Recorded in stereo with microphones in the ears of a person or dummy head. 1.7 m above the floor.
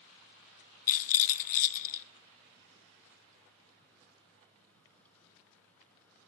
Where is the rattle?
50° left (ahead or behind), 0.5 m.